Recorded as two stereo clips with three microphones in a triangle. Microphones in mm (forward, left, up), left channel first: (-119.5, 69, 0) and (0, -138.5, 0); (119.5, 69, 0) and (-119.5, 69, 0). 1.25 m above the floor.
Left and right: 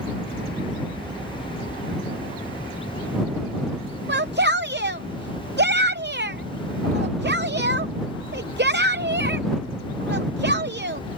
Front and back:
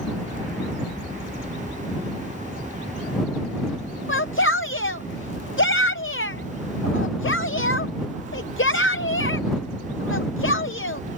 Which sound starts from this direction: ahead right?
A shout, at 4.1 s.